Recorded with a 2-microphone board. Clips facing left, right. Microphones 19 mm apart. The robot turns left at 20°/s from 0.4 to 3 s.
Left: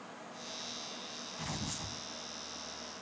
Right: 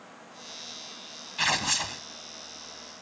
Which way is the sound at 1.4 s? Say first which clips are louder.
Right 16 dB; 70° right (ahead or behind).